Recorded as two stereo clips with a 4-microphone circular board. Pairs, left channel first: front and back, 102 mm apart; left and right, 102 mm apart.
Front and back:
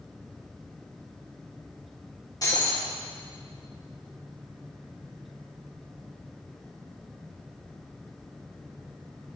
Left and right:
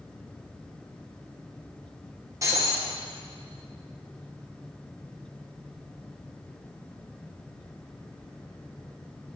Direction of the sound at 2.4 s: 40° right.